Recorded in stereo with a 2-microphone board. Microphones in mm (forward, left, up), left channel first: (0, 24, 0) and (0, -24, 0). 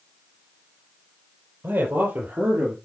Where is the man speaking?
50° right (ahead or behind), 3.5 m; by 2.8 s 55° right (ahead or behind), 3 m.